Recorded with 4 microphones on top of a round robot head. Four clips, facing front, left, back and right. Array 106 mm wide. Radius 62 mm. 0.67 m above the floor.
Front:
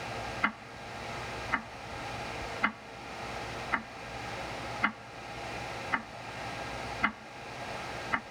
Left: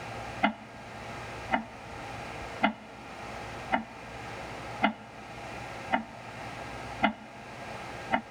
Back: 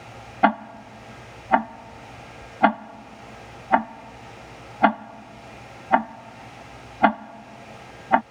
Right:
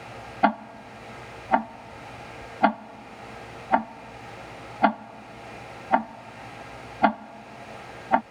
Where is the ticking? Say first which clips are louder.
Right 8 dB, back 18 dB; 155° right.